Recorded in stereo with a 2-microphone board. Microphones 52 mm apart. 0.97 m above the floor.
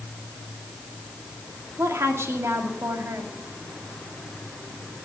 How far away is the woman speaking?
About 2.5 m.